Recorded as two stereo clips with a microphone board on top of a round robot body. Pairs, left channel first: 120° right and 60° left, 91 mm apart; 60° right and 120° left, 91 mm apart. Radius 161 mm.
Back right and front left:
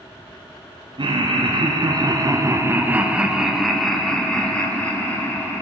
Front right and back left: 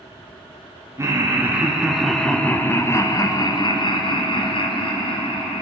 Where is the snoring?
No snoring in this recording.